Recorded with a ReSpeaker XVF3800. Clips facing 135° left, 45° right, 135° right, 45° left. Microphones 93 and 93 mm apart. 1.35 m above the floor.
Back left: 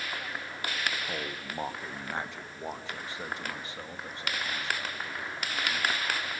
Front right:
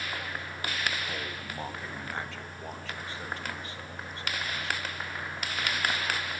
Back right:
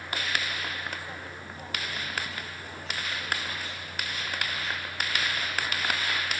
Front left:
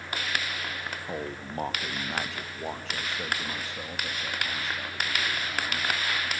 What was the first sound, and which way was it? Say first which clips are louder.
A man speaking: back left 1 dB, front left 6 dB; 60° left.